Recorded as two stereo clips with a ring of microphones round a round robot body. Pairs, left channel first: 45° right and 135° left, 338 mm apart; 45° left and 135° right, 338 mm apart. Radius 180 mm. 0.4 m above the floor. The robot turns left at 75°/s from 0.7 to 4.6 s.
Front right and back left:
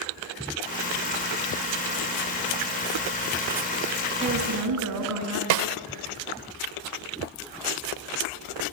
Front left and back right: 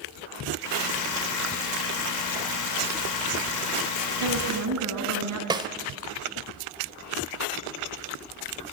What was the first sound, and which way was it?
A woman speaking, 150° right.